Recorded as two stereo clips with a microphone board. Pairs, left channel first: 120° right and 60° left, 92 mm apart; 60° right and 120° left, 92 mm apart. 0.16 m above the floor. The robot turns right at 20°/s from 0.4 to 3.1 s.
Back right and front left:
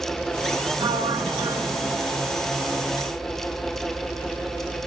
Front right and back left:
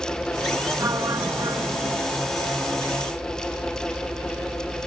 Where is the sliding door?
70° left, 1.0 m; by 2.0 s 95° left, 1.0 m.